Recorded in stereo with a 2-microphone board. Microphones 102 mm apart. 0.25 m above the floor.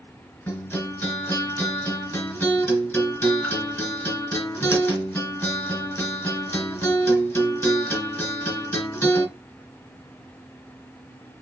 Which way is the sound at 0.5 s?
25° left (ahead or behind).